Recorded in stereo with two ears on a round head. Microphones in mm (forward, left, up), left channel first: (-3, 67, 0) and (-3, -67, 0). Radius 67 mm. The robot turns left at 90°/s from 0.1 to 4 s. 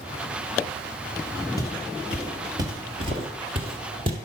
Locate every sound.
1.6 s footsteps: 25° left (ahead or behind), 2.0 m; by 4.2 s 35° right (ahead or behind), 1.7 m